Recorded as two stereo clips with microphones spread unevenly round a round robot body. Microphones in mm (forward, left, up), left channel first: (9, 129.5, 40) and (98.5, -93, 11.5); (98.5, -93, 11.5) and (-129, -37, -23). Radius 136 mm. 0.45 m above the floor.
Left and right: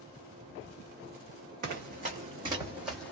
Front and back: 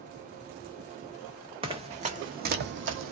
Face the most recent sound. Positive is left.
turn(degrees=-170)